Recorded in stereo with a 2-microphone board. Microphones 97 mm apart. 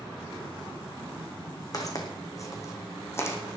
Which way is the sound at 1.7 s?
35° left (ahead or behind).